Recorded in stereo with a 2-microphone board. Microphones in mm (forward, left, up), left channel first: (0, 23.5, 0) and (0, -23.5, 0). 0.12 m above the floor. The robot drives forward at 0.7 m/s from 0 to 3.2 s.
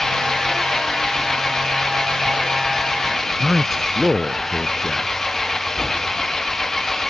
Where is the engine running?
10° left (ahead or behind).